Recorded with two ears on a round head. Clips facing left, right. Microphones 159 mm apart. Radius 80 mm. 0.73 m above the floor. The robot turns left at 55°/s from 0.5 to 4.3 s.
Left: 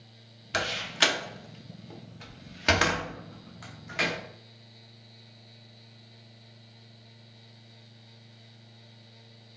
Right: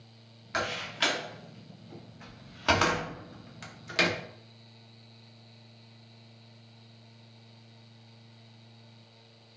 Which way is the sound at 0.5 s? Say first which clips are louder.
Left 2 dB; 40° left (ahead or behind).